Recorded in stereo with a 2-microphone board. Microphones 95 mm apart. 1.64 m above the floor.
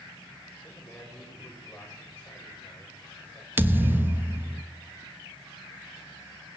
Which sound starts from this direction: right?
A thud, at 3.6 s.